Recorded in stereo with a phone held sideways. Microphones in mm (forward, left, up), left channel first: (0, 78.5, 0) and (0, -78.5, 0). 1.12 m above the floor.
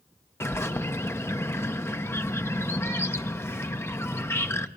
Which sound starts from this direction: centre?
A bird, at 0.4 s.